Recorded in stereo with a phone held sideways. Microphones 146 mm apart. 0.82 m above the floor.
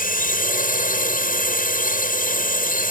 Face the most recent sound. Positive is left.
turn(degrees=70)  # may be behind; listen again after turning